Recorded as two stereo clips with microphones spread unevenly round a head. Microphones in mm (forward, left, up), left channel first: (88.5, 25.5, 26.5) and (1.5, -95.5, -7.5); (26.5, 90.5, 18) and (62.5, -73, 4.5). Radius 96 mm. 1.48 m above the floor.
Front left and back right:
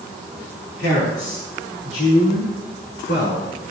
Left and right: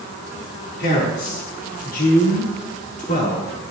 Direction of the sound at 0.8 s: 85° left.